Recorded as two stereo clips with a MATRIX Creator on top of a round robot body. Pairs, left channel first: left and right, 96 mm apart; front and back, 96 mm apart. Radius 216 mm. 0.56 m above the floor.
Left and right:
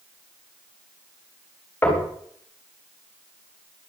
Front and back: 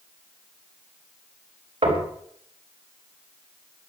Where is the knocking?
160° left, 4.5 m.